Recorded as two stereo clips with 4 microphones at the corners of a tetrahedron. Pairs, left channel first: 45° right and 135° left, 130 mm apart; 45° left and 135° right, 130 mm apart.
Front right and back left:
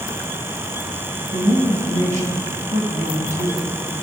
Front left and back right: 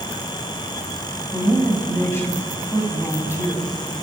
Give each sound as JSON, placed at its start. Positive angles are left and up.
{"t": 1.3, "sound": "a man speaking", "azimuth_deg": 115, "distance_m": 6.0}